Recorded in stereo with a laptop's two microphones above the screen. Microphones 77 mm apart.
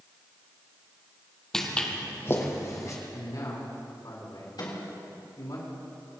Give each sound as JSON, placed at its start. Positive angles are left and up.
{"t": 1.5, "sound": "footsteps", "side_deg": 5, "distance_m": 1.8}
{"t": 3.1, "sound": "a man speaking", "side_deg": 60, "distance_m": 4.0}
{"t": 4.6, "sound": "a microwave", "side_deg": 65, "distance_m": 3.5}